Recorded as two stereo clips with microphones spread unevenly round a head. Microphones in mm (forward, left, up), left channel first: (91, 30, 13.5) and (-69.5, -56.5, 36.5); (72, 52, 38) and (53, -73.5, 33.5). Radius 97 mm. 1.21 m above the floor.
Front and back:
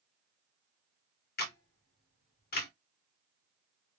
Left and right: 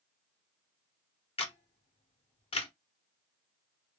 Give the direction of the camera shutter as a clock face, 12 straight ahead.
11 o'clock.